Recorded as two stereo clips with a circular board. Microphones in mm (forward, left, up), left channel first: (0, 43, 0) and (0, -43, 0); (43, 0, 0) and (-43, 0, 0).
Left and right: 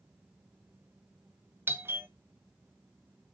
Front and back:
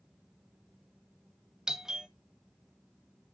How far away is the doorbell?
About 0.7 m.